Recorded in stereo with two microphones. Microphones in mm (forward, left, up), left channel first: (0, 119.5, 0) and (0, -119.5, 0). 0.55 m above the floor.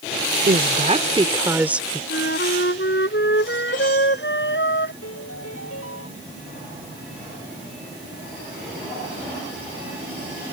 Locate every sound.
0.5 s a woman speaking: 40° right (ahead or behind); by 2.0 s centre (ahead or behind)
2.1 s a flute: 50° left (ahead or behind)
5.0 s a piano: 70° left (ahead or behind)